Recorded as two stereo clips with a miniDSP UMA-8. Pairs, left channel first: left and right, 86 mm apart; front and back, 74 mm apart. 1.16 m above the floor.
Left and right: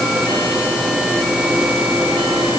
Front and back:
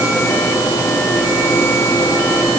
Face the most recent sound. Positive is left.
No sound to turn to.